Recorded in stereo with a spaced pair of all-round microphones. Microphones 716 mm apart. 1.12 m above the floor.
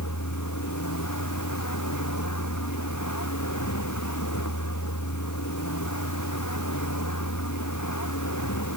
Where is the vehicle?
25° left (ahead or behind).